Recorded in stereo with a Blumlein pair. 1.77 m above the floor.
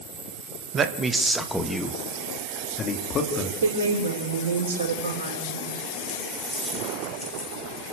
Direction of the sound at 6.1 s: 5° right.